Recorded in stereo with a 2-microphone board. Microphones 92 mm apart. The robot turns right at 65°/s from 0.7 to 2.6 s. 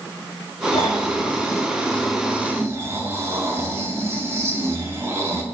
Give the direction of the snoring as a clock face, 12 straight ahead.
9 o'clock.